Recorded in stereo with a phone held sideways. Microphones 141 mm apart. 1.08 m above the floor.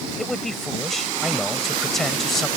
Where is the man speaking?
Centre (ahead or behind).